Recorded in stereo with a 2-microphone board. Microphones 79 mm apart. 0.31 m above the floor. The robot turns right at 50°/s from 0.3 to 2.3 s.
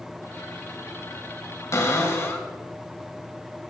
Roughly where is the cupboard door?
Left.